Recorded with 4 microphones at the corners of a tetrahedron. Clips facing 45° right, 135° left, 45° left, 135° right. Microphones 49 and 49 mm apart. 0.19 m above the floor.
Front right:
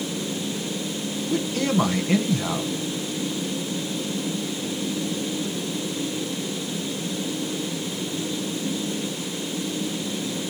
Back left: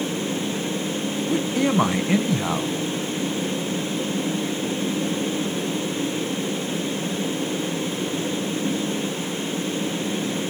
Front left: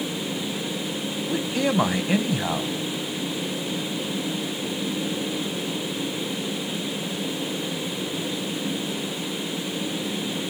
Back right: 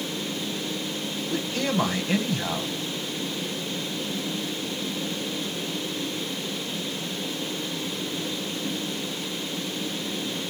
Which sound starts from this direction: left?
A man speaking, at 1.3 s.